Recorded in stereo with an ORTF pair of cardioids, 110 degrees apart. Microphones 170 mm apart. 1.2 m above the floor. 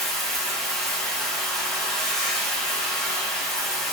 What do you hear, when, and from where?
0.0 s running water: straight ahead, 0.8 m